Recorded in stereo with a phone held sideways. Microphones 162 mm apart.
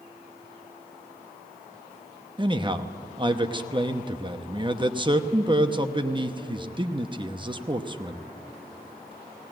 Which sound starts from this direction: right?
A man speaking, at 2.4 s.